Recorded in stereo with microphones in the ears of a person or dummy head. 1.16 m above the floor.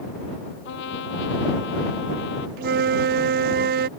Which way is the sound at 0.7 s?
65° left (ahead or behind).